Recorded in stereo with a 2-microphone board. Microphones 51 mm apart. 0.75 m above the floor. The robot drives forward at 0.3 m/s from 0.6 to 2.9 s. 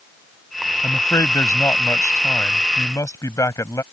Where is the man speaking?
75° left (ahead or behind); by 3.8 s 80° left.